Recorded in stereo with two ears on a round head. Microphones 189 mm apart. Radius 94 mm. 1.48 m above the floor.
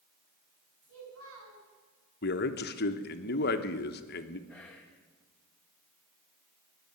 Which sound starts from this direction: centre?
Whispering, at 4.5 s.